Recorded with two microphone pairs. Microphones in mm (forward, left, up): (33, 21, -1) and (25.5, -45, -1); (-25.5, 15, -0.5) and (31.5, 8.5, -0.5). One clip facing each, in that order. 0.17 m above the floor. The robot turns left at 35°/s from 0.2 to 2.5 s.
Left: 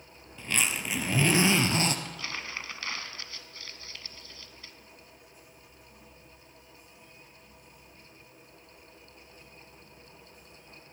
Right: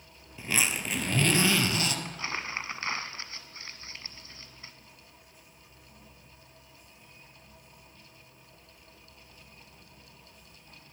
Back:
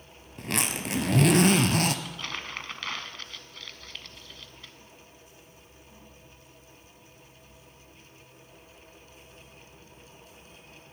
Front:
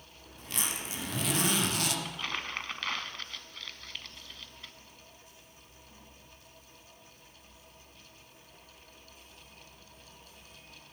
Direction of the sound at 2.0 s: 75° right.